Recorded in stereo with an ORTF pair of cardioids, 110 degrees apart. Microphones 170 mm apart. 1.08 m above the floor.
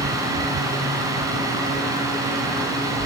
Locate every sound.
0.0 s a fan: 20° right, 6.5 m